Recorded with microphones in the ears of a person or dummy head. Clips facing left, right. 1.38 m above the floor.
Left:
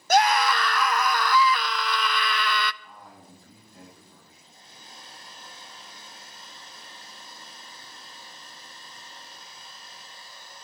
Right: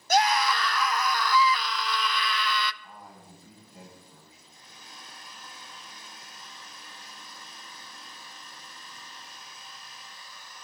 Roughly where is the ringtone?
No ringtone in this recording.